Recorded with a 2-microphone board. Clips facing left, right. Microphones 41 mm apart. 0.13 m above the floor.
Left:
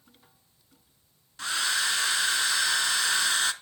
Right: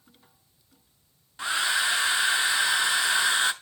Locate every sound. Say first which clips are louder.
1.4 s a hair dryer: right 3 dB; 15° right (ahead or behind), 0.7 m